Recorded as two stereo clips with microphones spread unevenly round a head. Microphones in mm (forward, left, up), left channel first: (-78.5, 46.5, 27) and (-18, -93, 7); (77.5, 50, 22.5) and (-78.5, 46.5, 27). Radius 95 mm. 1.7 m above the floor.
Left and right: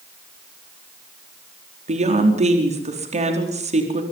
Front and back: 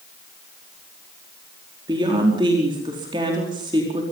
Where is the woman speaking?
110° right, 4.5 m.